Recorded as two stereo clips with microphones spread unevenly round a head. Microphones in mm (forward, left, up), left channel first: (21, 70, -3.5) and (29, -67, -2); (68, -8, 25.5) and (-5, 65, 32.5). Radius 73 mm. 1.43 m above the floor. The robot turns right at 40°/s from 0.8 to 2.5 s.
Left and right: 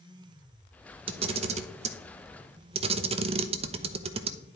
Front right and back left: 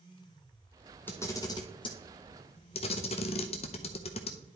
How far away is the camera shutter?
About 0.6 m.